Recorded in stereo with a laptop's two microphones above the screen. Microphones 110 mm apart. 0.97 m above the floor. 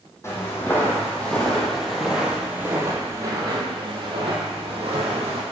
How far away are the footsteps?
About 3 m.